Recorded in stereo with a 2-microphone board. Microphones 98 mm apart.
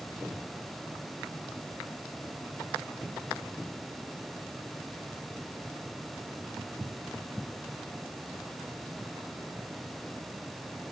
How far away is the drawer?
No drawer in this recording.